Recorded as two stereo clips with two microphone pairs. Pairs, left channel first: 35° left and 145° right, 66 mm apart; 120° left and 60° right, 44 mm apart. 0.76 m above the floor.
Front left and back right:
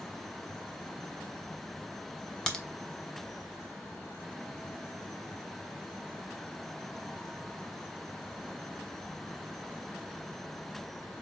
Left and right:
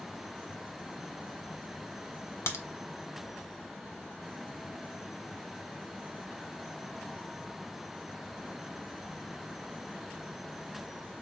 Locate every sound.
2.5 s a crack: 115° left, 0.7 m